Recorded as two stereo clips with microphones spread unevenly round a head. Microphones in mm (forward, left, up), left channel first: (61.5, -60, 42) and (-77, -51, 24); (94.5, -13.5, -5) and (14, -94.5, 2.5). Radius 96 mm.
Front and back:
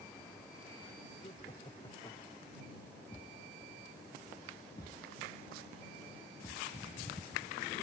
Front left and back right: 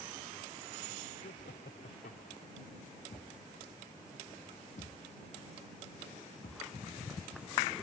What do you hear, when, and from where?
1.2 s laughter: 60° left; by 2.6 s 75° left
3.1 s a thud: 60° left